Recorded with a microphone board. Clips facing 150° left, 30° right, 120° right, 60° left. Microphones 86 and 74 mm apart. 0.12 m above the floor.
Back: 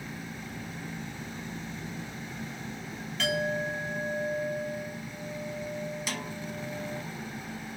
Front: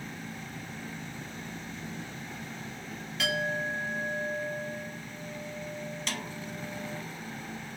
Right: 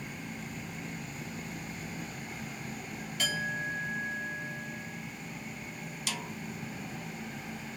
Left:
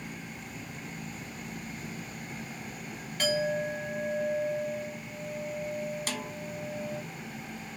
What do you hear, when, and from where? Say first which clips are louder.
3.2 s a clink: back 2 dB, left 6 dB; 55° left, 1.5 m
6.1 s a snare drum: back 1 dB, left 2 dB; 70° left, 0.6 m